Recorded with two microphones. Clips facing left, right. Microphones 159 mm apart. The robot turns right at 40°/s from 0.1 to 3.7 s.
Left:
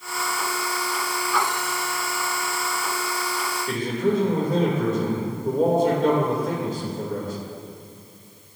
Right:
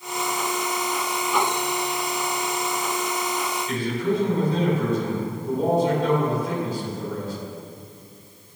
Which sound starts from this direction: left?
A man speaking, at 3.7 s.